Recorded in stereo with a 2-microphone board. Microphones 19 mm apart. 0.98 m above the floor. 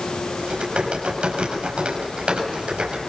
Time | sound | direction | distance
0.4 | typing on a keyboard | 80° right | 7 m